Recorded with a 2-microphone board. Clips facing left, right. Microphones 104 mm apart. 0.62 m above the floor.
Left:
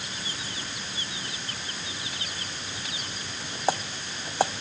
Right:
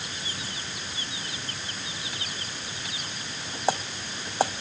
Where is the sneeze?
No sneeze in this recording.